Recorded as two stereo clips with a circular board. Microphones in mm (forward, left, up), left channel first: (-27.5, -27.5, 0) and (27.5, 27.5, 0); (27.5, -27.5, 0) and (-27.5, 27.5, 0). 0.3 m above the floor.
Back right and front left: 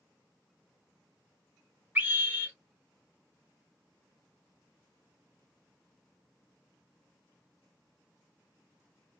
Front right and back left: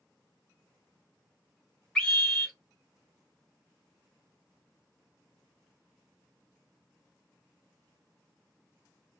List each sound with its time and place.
1.9 s a scream: 20° left, 1.2 m